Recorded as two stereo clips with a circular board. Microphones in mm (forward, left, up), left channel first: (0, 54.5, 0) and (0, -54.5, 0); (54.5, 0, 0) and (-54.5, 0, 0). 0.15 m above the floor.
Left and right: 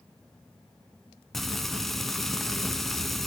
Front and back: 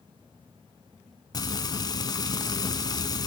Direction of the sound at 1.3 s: 5° left.